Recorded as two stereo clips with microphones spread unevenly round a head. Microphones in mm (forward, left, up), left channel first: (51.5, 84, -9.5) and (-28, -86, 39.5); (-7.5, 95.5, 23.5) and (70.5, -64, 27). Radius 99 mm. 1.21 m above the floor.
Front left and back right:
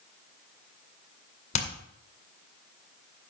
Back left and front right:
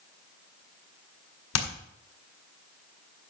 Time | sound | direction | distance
1.5 | hammering | 130° left | 1.9 m